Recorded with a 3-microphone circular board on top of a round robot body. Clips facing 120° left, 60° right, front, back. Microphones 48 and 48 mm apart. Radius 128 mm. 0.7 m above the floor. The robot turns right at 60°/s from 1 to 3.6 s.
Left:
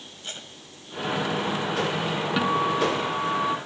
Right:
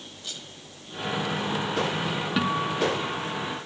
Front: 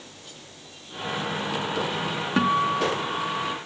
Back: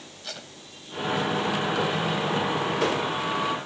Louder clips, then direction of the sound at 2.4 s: Left 3 dB, front 3 dB; 30° left.